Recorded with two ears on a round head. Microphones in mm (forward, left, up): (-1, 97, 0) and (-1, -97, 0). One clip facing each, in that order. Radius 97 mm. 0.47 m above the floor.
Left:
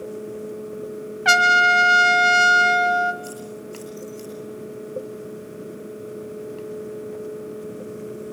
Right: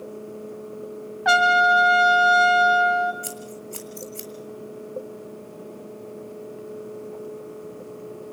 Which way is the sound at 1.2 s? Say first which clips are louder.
Right 3 dB; 40° left (ahead or behind).